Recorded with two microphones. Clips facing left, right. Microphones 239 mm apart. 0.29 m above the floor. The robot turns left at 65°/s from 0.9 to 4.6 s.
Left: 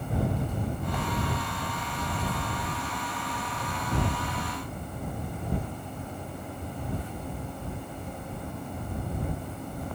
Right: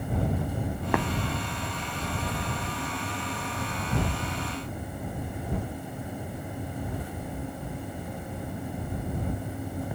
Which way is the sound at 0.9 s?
75° right (ahead or behind).